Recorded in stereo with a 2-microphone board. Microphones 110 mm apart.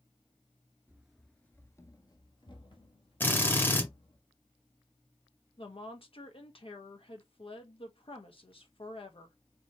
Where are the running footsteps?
15° right (ahead or behind), 0.9 m; by 4.2 s 70° left (ahead or behind), 2.5 m.